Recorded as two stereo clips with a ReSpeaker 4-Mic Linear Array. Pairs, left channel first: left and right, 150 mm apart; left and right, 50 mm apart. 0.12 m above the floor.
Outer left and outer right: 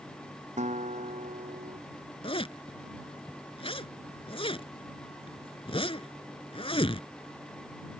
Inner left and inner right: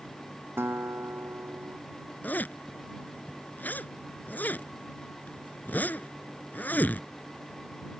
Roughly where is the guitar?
Right.